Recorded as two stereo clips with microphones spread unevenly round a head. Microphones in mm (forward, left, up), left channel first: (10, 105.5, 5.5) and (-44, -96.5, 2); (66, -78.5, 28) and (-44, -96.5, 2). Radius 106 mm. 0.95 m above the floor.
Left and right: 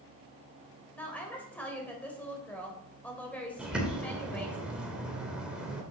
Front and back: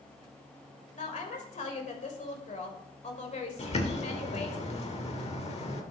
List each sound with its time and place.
0.9 s a woman speaking: 10° right, 3.5 m
3.6 s a bird: 20° right, 2 m